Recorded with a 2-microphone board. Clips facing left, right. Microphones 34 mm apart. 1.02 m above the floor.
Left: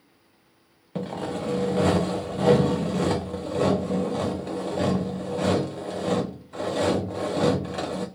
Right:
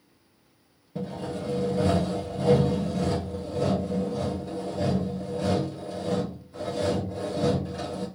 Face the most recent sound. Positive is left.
turn(degrees=75)  # may be behind; listen again after turning